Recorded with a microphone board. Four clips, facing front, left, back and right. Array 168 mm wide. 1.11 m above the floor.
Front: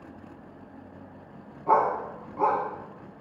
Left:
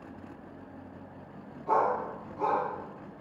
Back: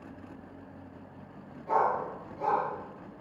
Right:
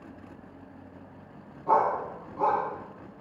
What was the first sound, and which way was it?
A dog barking, 30° right.